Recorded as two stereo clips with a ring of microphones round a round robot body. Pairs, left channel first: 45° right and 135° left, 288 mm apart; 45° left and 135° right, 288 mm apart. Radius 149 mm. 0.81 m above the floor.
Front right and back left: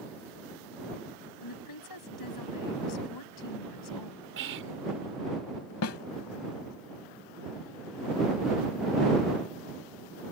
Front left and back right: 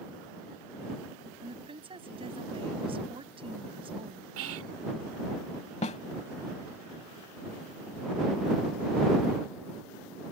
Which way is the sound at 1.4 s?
65° right.